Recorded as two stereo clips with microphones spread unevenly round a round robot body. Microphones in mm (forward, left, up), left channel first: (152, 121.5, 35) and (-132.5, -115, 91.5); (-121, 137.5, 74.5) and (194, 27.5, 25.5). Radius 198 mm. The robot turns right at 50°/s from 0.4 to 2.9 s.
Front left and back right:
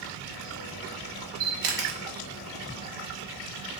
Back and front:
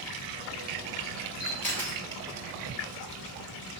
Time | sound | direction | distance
1.4 | a camera shutter | 140° right | 0.7 m